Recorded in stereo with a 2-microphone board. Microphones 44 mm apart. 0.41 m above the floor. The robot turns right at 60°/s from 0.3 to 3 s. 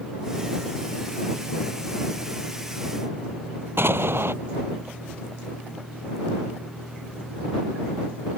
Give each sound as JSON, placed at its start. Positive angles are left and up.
{"t": 3.8, "sound": "an explosion", "side_deg": -60}